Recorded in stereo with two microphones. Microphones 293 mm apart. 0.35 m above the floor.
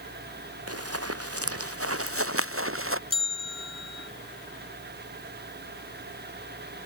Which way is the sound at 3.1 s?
55° left (ahead or behind).